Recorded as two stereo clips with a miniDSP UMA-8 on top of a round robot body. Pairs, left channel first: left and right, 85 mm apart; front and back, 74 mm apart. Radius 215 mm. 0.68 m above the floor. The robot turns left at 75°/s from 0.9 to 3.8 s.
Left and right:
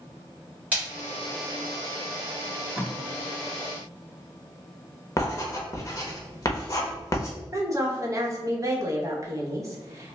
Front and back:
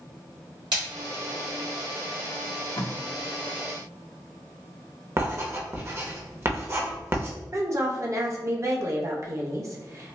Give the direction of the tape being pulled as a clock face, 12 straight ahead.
12 o'clock.